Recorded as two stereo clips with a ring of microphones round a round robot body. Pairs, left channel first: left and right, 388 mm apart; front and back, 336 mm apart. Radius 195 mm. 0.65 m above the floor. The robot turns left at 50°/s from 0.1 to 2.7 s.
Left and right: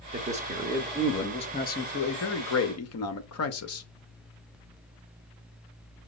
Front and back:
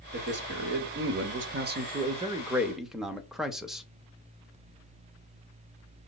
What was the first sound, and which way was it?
A man speaking, 140° right.